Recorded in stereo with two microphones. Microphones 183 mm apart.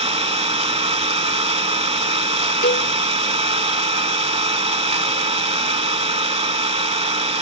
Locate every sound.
0.0 s an engine running: 35° right (ahead or behind), 0.8 m
2.6 s a cowbell: 65° left (ahead or behind), 0.6 m